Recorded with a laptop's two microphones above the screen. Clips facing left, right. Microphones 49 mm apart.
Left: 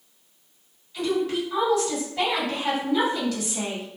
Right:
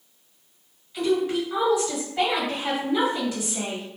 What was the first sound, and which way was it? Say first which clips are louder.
A woman speaking: right 2 dB; 5° right (ahead or behind).